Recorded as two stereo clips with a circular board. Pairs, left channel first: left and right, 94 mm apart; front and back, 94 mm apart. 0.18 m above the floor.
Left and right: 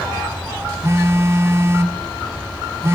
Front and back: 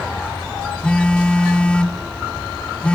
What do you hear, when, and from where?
0.8 s a phone buzzing: 70° right, 0.7 m